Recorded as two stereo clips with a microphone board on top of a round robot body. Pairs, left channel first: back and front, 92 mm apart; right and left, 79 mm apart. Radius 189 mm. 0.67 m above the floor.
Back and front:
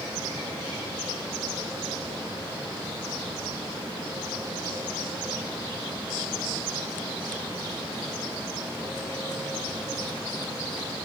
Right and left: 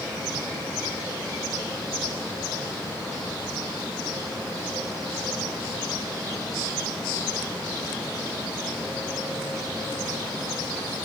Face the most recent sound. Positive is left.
No sound to turn to.